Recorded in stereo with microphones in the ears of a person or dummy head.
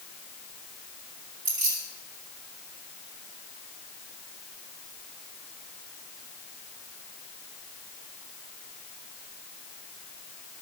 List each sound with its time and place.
1.4 s keys jangling: 85° right, 6.5 m